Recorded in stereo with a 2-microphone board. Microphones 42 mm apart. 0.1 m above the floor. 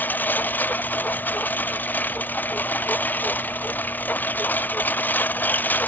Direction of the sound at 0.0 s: 50° left (ahead or behind).